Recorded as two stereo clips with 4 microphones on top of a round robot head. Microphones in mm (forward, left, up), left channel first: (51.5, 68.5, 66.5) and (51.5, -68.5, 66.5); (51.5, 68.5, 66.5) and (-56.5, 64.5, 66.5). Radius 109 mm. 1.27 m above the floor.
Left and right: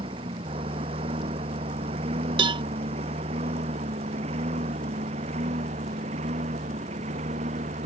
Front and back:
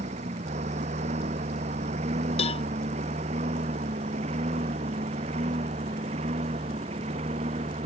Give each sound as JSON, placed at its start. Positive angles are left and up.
{"t": 0.0, "sound": "a lawn mower", "azimuth_deg": -150}
{"t": 2.4, "sound": "a cowbell", "azimuth_deg": -40}